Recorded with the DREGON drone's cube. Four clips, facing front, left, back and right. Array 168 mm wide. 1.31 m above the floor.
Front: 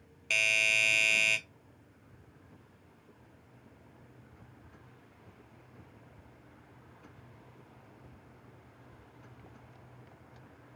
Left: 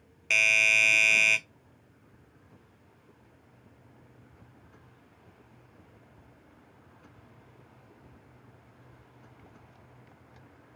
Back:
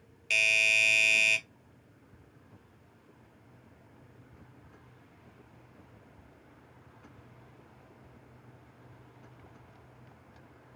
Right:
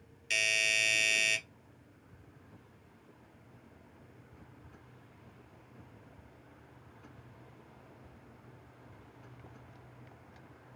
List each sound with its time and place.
0.3 s a doorbell: 80° left, 0.7 m